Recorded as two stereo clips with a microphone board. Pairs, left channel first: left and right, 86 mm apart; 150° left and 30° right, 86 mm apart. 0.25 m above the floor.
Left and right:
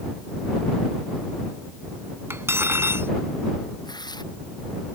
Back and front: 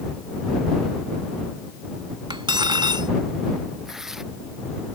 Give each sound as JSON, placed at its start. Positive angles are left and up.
{"t": 2.3, "sound": "cutlery clinking", "azimuth_deg": -35}
{"t": 3.9, "sound": "tearing paper", "azimuth_deg": 55}